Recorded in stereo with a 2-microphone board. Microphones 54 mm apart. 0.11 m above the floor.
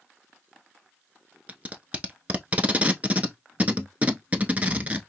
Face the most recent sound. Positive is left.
turn(degrees=-30)  # may be behind; listen again after turning